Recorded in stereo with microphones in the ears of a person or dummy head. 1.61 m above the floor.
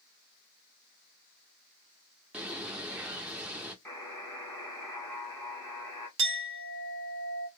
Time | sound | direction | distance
2.3 | a bird | 5° right (ahead or behind) | 0.5 m
3.9 | a buzzer | 10° left (ahead or behind) | 1.1 m
6.2 | a clink | 25° right (ahead or behind) | 0.8 m